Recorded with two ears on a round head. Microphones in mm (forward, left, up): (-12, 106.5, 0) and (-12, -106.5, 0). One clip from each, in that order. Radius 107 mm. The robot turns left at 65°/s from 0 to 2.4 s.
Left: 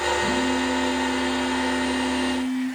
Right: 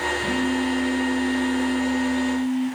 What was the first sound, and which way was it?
A phone buzzing, 160° right.